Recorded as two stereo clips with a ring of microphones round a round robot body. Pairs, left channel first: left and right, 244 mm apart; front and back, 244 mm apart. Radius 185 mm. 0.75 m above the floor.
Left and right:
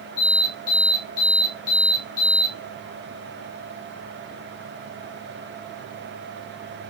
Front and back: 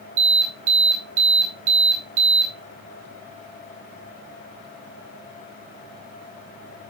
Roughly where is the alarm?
Behind.